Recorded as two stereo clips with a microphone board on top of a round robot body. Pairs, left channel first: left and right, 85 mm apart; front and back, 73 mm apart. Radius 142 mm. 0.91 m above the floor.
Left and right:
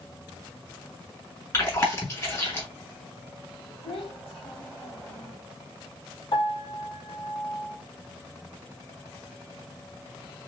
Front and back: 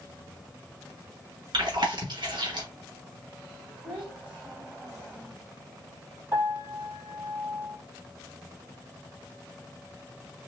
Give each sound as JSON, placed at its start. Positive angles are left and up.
{"t": 1.5, "sound": "chewing", "azimuth_deg": 150, "distance_m": 2.0}
{"t": 3.8, "sound": "a child speaking", "azimuth_deg": 110, "distance_m": 2.5}
{"t": 6.3, "sound": "a piano", "azimuth_deg": 115, "distance_m": 2.5}